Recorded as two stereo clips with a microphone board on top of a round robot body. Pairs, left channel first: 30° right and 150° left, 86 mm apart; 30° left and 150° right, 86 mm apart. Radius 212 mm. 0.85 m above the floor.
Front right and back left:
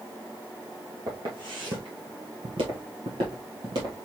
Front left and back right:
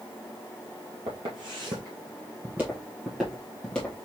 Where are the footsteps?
170° right, 1.2 m; by 4.0 s 105° left, 1.5 m.